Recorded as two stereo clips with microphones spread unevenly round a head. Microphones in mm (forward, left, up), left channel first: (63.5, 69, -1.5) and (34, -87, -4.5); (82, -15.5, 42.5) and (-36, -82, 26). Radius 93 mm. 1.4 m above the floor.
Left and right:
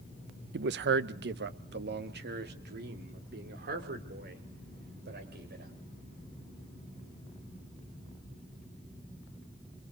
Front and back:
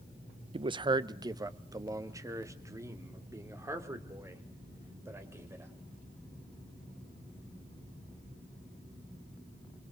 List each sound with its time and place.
0.5 s a man speaking: 100° right, 0.7 m; by 5.7 s 80° right, 5.5 m